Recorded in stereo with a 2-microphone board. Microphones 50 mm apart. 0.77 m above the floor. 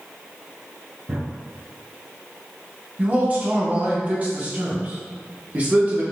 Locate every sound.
1.1 s a drawer: 45° right (ahead or behind), 0.8 m
3.0 s a man speaking: 30° right (ahead or behind), 0.8 m